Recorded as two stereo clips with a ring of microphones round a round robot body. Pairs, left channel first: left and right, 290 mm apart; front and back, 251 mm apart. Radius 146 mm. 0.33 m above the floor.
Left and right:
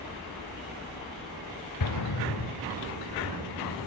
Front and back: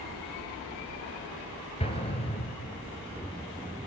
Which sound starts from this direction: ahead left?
An explosion, at 1.8 s.